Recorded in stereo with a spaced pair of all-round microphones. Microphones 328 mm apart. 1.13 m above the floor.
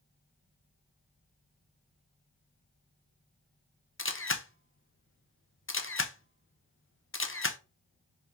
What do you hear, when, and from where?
4.0 s a camera shutter: 40° left (ahead or behind), 0.8 m